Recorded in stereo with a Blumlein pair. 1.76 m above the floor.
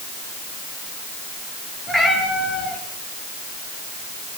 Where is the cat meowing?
5° left, 5.5 m.